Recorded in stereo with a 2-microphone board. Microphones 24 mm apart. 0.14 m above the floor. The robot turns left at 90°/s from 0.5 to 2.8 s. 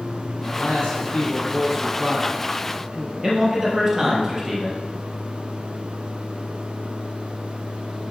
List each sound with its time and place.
0.4 s a man speaking: 85° left, 4 m; by 3.1 s 120° right, 4 m
3.2 s a man speaking: 5° right (ahead or behind), 3 m